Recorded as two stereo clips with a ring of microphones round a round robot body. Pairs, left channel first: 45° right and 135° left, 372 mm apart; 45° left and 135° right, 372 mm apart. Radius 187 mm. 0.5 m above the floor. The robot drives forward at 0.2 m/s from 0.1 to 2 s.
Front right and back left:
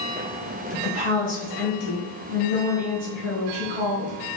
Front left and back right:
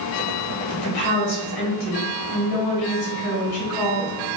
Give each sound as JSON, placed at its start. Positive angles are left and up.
{"t": 0.7, "sound": "a woman speaking", "azimuth_deg": 65, "distance_m": 1.7}